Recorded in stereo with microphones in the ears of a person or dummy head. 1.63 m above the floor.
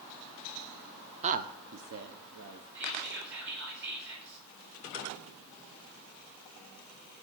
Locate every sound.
1.2 s a woman speaking: 35° right (ahead or behind), 0.7 m; by 2.6 s 85° right, 1.5 m
2.8 s whispering: 60° right (ahead or behind), 8 m